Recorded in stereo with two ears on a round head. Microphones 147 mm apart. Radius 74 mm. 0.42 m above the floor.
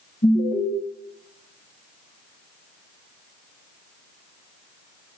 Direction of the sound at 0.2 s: 65° left (ahead or behind).